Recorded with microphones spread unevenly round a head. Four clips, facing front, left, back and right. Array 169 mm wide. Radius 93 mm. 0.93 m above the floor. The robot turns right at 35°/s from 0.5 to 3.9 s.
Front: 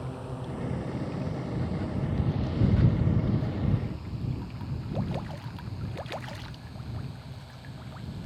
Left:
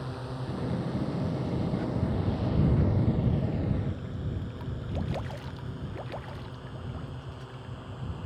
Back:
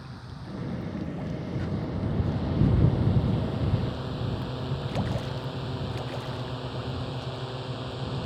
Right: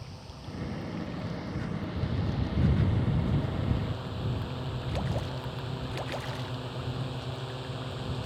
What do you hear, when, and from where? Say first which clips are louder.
0.0 s a drone: left 9 dB, front 6 dB; 60° left; by 8.3 s 160° right